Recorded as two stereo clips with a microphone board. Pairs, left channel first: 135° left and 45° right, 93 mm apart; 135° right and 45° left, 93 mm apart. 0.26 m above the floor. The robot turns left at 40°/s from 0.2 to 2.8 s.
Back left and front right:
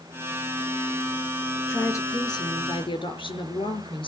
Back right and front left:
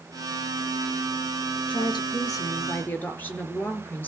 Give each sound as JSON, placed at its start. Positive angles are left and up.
{"t": 1.7, "sound": "a woman speaking", "azimuth_deg": -160, "distance_m": 4.0}